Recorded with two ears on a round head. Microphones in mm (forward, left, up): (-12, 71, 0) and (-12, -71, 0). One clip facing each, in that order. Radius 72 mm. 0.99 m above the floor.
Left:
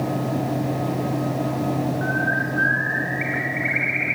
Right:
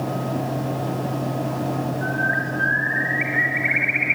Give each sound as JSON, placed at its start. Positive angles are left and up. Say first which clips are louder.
{"t": 2.0, "sound": "a bird", "louder": "left 1 dB", "side_deg": -5, "distance_m": 1.9}